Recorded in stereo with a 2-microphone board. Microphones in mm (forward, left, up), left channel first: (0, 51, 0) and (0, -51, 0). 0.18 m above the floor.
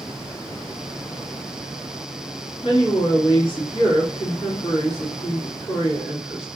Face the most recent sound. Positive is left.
turn(degrees=55)  # may be behind; listen again after turning